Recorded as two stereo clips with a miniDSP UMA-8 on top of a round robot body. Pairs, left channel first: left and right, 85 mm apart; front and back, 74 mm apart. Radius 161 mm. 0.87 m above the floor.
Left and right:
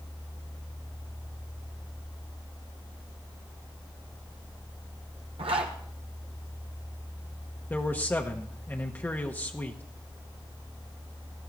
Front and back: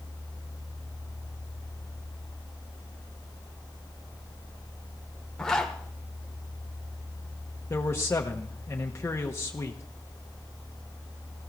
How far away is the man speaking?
About 1.2 m.